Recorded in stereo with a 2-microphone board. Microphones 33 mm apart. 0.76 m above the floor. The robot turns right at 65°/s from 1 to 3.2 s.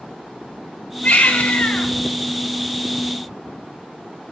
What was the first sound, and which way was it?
A baby crying, 70° left.